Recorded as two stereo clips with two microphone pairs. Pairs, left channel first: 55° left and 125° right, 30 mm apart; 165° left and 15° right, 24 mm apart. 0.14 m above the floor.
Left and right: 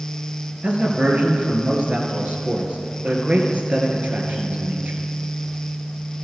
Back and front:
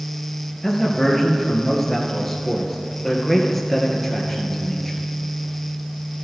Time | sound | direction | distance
0.6 | a man speaking | 110° right | 2 m